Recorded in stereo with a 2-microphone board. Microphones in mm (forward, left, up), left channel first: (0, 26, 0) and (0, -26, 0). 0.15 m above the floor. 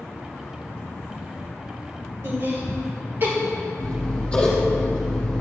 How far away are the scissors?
About 3 m.